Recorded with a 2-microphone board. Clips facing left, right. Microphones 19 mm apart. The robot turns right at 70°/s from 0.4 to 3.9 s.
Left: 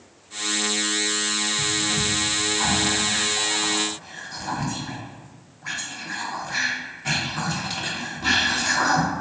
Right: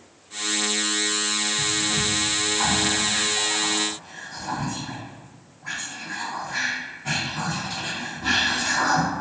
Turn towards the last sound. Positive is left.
turn(degrees=40)  # may be behind; listen again after turning